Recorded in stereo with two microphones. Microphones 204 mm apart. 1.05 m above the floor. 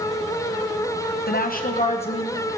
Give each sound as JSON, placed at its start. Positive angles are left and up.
{"t": 1.3, "sound": "a woman speaking", "side_deg": 50, "distance_m": 0.9}